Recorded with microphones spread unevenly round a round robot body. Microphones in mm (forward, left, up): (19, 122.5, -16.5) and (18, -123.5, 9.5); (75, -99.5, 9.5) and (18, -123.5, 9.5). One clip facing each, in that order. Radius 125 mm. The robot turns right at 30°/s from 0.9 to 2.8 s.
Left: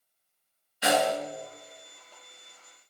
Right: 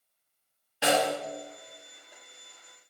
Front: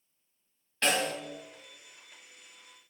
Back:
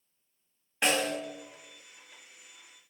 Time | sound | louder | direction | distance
0.8 | a snare drum | even, back 1 dB | 90° right | 1.3 m